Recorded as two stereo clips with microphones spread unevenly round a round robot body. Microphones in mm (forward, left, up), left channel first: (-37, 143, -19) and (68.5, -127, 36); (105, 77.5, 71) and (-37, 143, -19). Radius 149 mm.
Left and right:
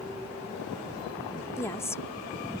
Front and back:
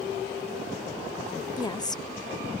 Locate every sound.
1.6 s a woman speaking: 90° left